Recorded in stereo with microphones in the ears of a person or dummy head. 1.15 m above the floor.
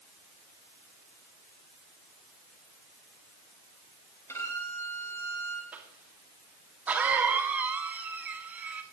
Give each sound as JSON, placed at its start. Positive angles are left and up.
{"t": 4.3, "sound": "a violin", "side_deg": 15, "distance_m": 5.5}
{"t": 5.7, "sound": "a cough", "side_deg": -10, "distance_m": 2.0}